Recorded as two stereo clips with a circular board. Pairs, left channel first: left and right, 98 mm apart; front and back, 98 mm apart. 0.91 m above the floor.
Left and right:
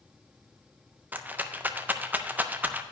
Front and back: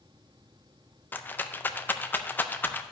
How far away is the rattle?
About 0.5 m.